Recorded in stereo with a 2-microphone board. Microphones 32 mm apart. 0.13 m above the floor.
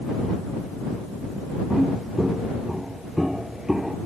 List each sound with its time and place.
1.7 s footsteps: 5° right (ahead or behind); by 4.0 s 10° right (ahead or behind)